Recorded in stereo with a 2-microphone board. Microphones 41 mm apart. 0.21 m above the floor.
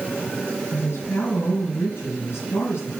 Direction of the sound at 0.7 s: 65° left (ahead or behind).